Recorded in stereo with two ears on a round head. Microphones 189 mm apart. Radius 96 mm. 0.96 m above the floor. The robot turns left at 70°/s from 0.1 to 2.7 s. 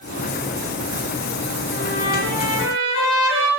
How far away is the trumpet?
About 8 m.